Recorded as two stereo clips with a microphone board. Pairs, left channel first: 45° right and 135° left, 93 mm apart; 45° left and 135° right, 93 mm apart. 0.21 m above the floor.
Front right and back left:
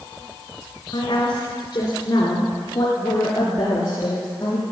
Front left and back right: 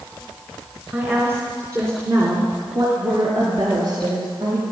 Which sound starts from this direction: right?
A woman speaking, at 0.9 s.